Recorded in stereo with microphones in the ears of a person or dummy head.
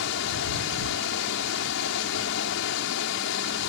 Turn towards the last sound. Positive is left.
turn(degrees=75)  # may be behind; listen again after turning